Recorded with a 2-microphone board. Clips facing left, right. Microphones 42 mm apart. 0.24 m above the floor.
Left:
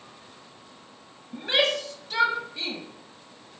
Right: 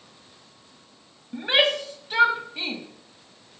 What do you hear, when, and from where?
1.3 s a shout: 20° right (ahead or behind), 1.4 m